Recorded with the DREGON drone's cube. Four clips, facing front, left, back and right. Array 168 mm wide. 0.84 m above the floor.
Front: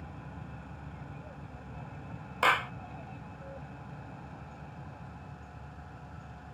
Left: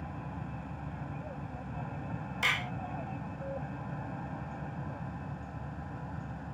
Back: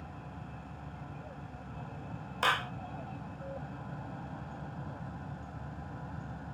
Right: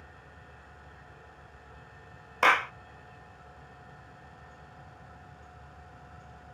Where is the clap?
70° right.